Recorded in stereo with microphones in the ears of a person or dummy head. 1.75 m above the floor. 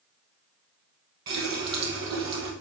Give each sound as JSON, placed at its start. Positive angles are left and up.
{"t": 1.3, "sound": "a running tap", "side_deg": -25, "distance_m": 1.0}